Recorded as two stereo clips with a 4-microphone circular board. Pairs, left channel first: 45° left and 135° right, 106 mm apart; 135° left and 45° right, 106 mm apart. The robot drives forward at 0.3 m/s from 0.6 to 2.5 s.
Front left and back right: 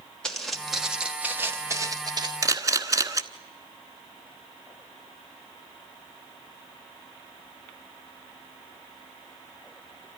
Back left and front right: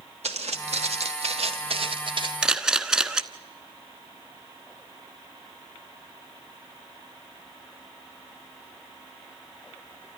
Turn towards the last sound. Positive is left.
turn(degrees=-125)